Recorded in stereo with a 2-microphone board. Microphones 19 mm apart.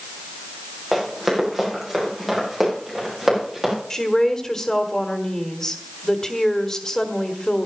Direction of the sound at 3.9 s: 30° left (ahead or behind).